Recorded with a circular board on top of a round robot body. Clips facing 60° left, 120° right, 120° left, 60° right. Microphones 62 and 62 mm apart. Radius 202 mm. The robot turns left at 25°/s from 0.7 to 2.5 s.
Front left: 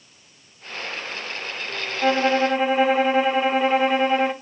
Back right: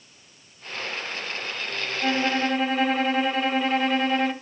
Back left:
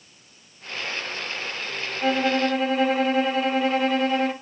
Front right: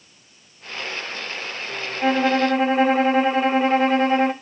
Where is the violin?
Straight ahead, 1.8 m; by 4.3 s 10° right, 1.8 m.